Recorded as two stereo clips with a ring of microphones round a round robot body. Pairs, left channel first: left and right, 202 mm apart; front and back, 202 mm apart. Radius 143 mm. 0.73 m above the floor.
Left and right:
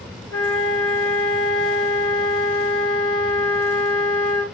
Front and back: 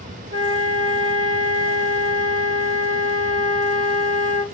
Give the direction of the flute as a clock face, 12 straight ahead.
6 o'clock.